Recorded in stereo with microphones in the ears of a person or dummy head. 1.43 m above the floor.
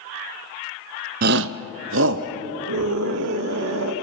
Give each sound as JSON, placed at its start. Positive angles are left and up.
{"t": 1.2, "sound": "a shout", "side_deg": -45, "distance_m": 0.6}
{"t": 2.7, "sound": "a scream", "side_deg": -85, "distance_m": 1.6}